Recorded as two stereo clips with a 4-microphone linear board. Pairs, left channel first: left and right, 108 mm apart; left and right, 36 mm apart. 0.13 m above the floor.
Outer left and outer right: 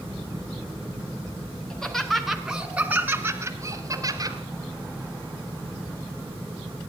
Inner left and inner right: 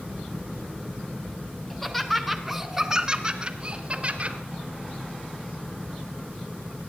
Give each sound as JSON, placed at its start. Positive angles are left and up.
{"t": 1.7, "sound": "laughter", "side_deg": 10, "distance_m": 1.7}